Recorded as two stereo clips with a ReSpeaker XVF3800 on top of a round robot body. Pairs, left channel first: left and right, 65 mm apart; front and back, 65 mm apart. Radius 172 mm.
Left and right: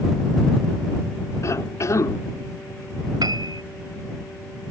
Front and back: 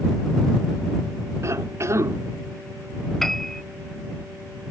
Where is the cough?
135° left.